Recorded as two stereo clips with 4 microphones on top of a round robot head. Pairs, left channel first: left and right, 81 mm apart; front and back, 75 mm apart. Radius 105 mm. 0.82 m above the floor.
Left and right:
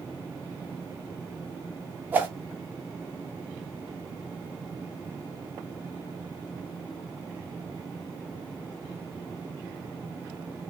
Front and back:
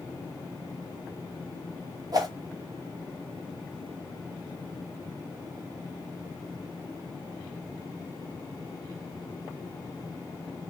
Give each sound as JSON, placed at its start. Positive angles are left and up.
{"t": 2.1, "sound": "a whoosh", "azimuth_deg": -155, "distance_m": 1.3}